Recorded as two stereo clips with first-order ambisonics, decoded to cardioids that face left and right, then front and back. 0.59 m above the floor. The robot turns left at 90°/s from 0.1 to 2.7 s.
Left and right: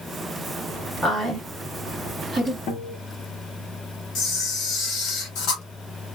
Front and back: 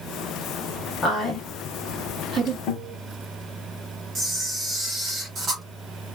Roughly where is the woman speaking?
Ahead right.